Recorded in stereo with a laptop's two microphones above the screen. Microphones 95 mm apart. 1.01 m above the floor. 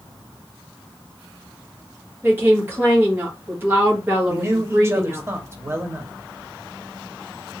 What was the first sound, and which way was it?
A woman speaking, 25° right (ahead or behind).